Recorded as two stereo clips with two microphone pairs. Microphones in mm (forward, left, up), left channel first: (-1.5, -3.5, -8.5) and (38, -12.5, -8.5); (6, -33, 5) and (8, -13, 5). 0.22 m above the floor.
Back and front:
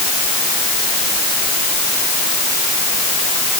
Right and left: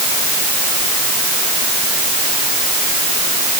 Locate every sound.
Only background noise.